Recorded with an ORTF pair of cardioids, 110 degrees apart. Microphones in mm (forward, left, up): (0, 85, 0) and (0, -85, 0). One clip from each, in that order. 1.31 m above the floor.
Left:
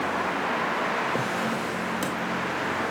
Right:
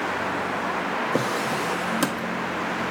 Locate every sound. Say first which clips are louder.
1.1 s a drawer: right 3 dB; 35° right, 1.2 m